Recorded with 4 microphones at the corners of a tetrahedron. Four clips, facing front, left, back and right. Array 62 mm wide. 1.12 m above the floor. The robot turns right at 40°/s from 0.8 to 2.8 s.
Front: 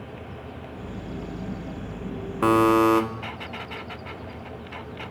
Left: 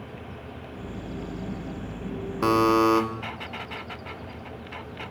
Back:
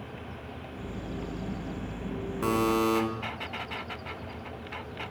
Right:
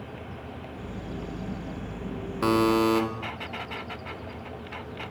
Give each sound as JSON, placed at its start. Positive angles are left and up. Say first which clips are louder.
{"t": 2.4, "sound": "a buzzer", "louder": "left 2 dB, front 8 dB", "azimuth_deg": 10, "distance_m": 0.9}